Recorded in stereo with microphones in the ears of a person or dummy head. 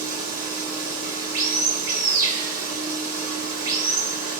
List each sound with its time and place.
0.0 s running water: 85° right, 4.5 m